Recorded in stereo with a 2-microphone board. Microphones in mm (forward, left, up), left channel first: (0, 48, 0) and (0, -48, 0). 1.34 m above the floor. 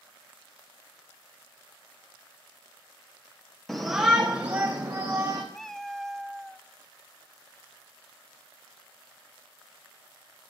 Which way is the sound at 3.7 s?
5° left (ahead or behind).